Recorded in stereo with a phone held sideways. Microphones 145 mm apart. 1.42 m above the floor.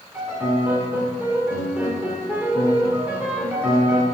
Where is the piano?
10° right (ahead or behind), 1.8 m.